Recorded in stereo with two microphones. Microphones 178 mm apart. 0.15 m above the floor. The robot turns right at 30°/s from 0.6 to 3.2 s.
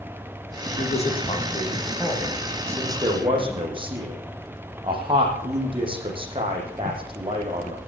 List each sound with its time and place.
0.8 s a man speaking: 40° left (ahead or behind), 8 m; by 7.8 s 30° right (ahead or behind), 8 m